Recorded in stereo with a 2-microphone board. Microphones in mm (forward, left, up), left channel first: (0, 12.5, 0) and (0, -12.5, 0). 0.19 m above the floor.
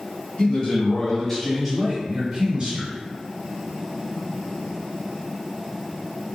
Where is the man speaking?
40° left (ahead or behind), 1.3 m; by 2.9 s 30° right (ahead or behind), 1.5 m.